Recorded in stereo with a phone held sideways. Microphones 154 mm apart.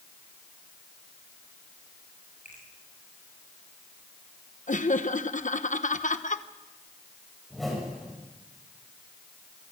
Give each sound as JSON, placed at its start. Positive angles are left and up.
{"t": 2.5, "sound": "a finger snap", "side_deg": 60, "distance_m": 8.0}
{"t": 4.7, "sound": "laughter", "side_deg": 60, "distance_m": 1.0}
{"t": 7.5, "sound": "a whoosh", "side_deg": 0, "distance_m": 8.0}